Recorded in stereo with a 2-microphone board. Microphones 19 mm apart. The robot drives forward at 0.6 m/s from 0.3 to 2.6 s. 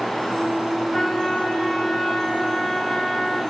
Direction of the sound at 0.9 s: 5° right (ahead or behind).